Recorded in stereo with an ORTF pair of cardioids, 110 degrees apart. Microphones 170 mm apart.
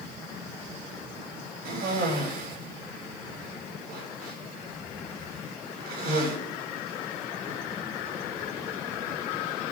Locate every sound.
1.6 s a cough: 65° right, 8 m